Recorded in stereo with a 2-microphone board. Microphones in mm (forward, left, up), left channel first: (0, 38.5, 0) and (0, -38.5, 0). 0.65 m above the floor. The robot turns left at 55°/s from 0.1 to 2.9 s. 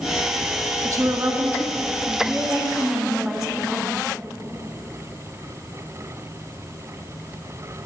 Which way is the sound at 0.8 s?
60° right.